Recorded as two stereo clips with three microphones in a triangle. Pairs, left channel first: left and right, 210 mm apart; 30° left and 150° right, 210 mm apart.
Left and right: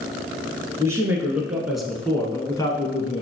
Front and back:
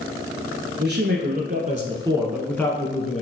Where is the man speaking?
165° right, 2 m; by 3.2 s 45° left, 1.4 m.